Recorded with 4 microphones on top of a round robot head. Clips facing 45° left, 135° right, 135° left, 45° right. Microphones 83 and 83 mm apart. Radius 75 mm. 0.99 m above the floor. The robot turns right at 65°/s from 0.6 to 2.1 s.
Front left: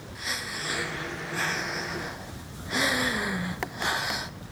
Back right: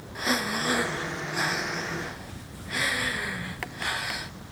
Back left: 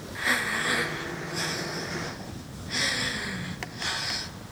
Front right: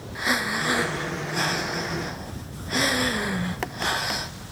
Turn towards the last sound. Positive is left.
turn(degrees=-15)